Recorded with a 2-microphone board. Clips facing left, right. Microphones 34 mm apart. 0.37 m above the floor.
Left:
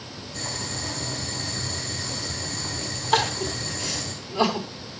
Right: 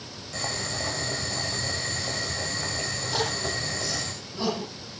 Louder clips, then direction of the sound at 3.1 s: Left 7 dB; 55° left (ahead or behind).